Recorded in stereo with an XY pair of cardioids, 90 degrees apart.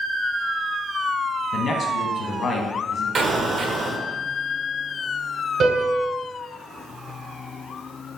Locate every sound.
1.5 s a man speaking: 60° left, 0.9 m
3.1 s an explosion: 55° right, 0.6 m
5.6 s a piano: 70° right, 1.7 m